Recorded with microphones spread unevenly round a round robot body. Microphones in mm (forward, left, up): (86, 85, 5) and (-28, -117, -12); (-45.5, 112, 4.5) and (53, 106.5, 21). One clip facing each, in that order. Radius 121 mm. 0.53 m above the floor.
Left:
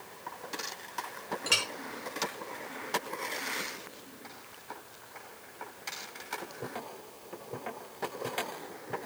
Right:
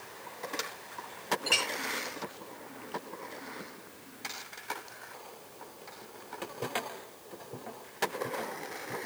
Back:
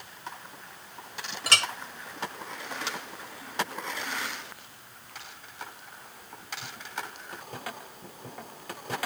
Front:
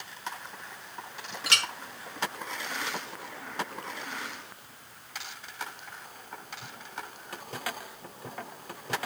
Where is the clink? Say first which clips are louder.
Right 1 dB, back 3 dB; 130° left, 1.5 m.